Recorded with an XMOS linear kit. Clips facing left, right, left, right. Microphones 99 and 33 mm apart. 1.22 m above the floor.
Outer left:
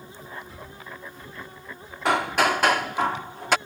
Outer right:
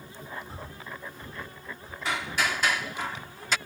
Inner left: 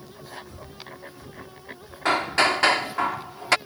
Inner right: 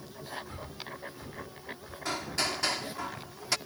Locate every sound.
0.5 s breathing: 35° right (ahead or behind)
2.0 s hammering: 55° left (ahead or behind)